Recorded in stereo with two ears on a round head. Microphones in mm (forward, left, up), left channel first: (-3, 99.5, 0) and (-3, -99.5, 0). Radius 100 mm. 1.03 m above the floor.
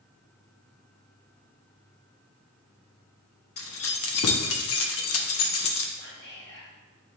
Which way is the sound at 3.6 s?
65° left (ahead or behind).